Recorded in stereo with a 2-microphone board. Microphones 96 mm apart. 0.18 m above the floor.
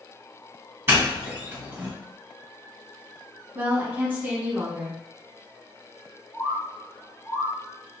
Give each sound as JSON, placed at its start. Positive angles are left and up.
{"t": 0.9, "sound": "a doorbell", "side_deg": -25, "distance_m": 1.5}
{"t": 3.5, "sound": "a woman speaking", "side_deg": -20, "distance_m": 1.3}
{"t": 6.3, "sound": "a bird", "side_deg": 10, "distance_m": 1.7}